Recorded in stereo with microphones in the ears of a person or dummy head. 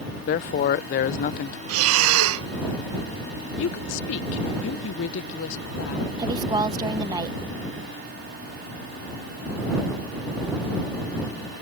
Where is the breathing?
80° right.